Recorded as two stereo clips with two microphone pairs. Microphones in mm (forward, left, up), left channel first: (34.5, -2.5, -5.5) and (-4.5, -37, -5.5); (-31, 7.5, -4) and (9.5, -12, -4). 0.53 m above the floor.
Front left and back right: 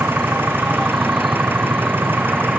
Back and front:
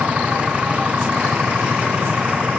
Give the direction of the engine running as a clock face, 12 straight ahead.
3 o'clock.